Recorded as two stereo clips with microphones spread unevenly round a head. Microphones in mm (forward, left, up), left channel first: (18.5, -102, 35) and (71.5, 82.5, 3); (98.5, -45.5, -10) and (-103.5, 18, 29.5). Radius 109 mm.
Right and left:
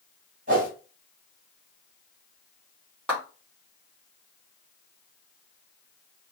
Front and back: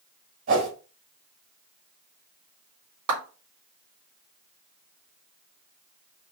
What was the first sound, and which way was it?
A whoosh, 130° left.